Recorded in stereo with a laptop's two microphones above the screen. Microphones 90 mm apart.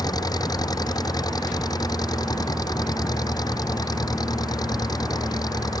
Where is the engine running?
45° left (ahead or behind).